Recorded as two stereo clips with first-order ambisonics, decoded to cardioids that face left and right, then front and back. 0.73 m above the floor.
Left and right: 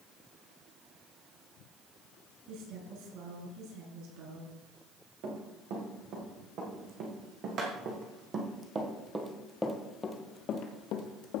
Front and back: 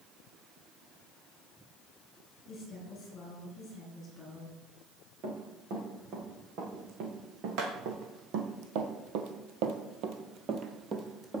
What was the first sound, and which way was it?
A woman speaking, 65° right.